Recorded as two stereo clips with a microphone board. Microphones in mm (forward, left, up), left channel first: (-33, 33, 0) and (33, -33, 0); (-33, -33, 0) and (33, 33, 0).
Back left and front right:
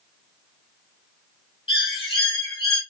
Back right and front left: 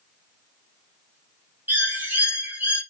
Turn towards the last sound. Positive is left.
turn(degrees=110)